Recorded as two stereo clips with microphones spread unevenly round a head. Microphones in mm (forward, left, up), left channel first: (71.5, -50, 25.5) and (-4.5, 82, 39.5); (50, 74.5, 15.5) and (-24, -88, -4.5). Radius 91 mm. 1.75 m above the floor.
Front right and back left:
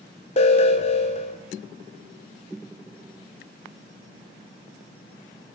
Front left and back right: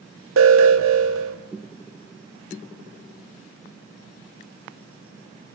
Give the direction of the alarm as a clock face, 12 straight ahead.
4 o'clock.